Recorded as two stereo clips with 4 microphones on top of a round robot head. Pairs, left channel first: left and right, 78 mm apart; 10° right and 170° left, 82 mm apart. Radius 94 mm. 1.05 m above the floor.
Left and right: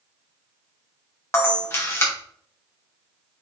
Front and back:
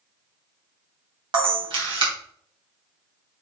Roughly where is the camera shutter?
Behind left.